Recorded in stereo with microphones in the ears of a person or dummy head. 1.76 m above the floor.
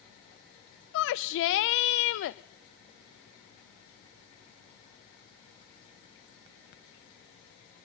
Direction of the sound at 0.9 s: 65° left (ahead or behind).